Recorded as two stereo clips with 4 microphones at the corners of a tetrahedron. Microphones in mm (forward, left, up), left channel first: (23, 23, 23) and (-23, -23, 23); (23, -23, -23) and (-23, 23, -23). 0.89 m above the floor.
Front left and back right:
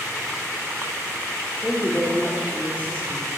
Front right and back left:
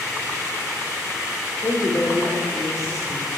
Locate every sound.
1.6 s a woman speaking: 20° right, 3 m